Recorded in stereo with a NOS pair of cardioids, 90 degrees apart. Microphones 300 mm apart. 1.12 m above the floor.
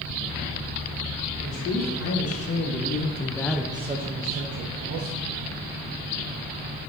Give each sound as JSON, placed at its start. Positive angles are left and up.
{"t": 1.4, "sound": "a man speaking", "azimuth_deg": 65, "distance_m": 3.0}